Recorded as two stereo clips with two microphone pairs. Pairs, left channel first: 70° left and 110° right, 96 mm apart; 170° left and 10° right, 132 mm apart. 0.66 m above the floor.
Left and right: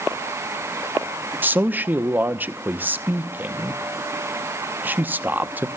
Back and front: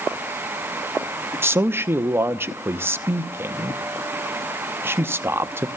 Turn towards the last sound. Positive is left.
turn(degrees=-65)